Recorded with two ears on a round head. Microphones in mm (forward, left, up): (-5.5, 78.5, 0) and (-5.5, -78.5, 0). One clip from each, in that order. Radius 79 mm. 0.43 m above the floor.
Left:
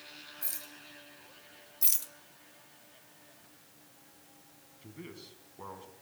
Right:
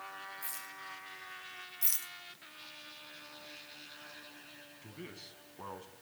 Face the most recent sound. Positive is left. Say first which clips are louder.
# left 2 dB
turn(degrees=-10)  # may be behind; listen again after turning